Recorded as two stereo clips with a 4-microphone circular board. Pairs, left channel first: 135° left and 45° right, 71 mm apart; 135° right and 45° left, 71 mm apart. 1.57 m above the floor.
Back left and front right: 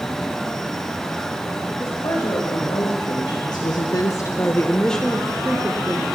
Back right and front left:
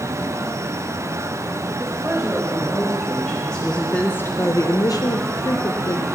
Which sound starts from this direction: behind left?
A woman speaking, at 1.8 s.